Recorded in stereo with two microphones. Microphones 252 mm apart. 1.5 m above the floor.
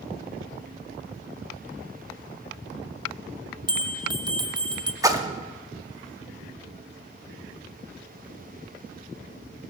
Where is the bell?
15° right (ahead or behind), 0.9 m.